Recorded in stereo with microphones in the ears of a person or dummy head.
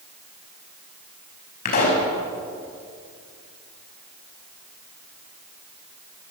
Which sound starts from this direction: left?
A pop, at 1.6 s.